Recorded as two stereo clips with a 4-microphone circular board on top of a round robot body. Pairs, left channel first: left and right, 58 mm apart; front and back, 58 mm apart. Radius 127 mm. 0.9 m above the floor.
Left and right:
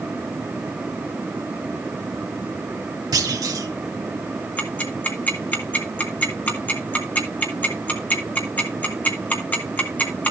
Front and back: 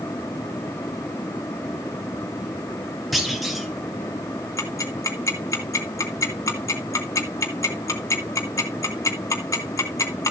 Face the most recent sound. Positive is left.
turn(degrees=30)